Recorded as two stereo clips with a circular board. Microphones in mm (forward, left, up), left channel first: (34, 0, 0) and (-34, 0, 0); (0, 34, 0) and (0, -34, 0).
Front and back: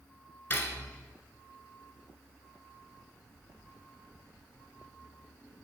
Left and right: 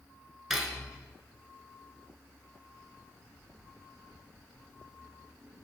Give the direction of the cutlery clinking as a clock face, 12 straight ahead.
12 o'clock.